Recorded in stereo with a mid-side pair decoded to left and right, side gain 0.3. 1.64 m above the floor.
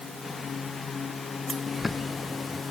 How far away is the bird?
About 1.5 m.